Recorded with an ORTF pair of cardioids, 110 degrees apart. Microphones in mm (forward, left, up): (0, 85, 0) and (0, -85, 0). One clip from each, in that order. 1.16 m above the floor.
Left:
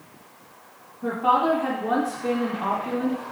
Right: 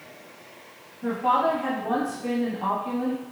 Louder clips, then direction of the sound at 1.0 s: Left 2 dB; 5° left.